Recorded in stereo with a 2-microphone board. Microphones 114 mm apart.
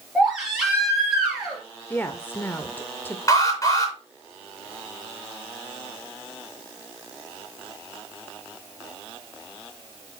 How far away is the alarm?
About 6 m.